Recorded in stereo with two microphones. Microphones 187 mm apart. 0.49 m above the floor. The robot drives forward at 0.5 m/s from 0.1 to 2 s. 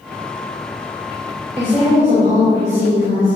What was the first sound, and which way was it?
A woman speaking, 45° right (ahead or behind).